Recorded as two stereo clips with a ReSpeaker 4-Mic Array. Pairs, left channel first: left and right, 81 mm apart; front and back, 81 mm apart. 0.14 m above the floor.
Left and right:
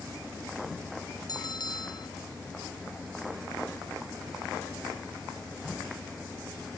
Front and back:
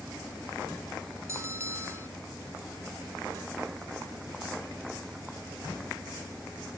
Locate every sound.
1.3 s a bell: 125° left